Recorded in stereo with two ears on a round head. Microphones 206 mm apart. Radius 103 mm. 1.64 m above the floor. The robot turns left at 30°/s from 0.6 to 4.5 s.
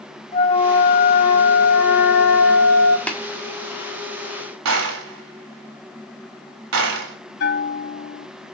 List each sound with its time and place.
0.3 s a flute: 150° left, 2 m; by 3.0 s 75° left, 2 m
3.1 s tapping: 5° left (ahead or behind), 1.8 m; by 3.2 s centre (ahead or behind), 1.8 m
4.7 s a gunshot: 80° right, 4 m
7.4 s a bell: 50° left (ahead or behind), 1.3 m